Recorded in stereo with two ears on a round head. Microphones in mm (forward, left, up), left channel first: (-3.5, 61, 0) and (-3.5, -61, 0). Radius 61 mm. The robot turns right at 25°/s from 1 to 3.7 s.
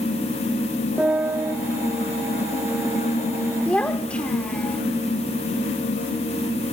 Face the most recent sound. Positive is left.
turn(degrees=10)  # may be behind; listen again after turning